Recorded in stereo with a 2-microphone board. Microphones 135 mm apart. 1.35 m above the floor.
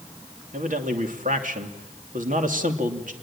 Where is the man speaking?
80° right, 3 m.